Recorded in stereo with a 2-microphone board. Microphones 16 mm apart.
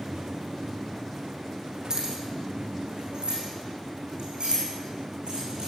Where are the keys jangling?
45° right (ahead or behind), 5 m; by 5.7 s 80° right, 9 m.